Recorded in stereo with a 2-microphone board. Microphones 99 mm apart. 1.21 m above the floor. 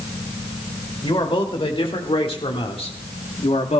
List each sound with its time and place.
1.0 s a man speaking: 60° left (ahead or behind), 2.5 m; by 3.8 s 85° left, 1.1 m